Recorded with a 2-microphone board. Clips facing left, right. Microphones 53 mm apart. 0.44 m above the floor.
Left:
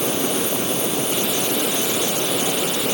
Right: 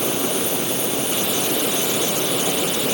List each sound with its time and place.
Only background noise.